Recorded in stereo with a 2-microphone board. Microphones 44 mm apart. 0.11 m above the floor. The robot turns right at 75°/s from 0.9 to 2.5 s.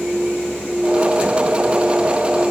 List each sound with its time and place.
Only background noise.